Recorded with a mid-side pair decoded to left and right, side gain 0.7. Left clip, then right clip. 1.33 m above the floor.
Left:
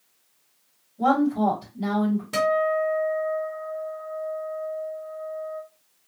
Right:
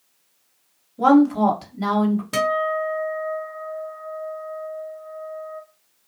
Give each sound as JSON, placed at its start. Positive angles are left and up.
{"t": 1.0, "sound": "a woman speaking", "azimuth_deg": -50, "distance_m": 1.4}
{"t": 2.3, "sound": "a guitar", "azimuth_deg": -20, "distance_m": 1.0}